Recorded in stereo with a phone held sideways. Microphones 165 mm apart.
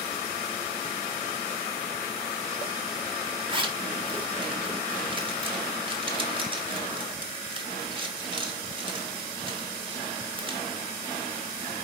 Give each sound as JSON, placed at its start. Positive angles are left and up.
{"t": 3.5, "sound": "a zipper", "side_deg": -30, "distance_m": 0.9}